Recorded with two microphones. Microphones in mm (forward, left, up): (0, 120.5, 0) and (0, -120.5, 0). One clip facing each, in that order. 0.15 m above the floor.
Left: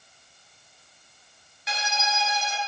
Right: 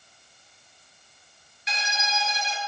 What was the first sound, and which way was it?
A violin, 60° left (ahead or behind).